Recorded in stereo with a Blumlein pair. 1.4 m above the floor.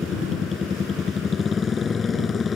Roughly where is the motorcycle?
Ahead.